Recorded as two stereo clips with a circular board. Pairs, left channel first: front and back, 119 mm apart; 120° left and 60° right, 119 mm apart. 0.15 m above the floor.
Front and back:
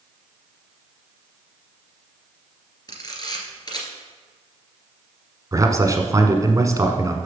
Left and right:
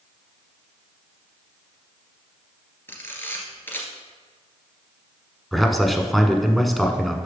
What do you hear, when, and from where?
2.9 s a camera shutter: 50° left, 2 m
5.5 s a man speaking: 150° right, 1.3 m